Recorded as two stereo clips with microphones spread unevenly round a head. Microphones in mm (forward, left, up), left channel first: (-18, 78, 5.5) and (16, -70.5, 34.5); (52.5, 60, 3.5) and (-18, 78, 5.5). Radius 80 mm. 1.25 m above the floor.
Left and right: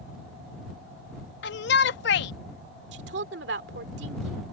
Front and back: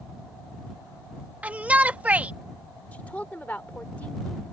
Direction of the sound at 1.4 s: 95° left.